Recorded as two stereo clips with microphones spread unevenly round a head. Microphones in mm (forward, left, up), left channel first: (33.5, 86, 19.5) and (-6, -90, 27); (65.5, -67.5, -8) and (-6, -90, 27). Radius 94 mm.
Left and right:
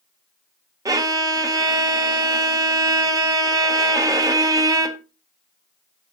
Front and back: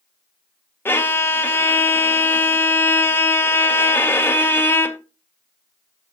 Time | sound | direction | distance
0.8 | a violin | 30° right | 0.9 m